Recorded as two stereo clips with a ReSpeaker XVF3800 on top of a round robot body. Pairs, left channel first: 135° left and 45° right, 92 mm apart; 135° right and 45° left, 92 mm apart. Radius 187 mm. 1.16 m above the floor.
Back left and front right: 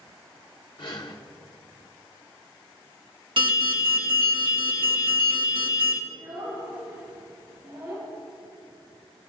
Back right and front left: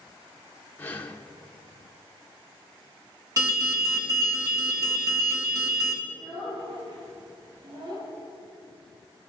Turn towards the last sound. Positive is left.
turn(degrees=25)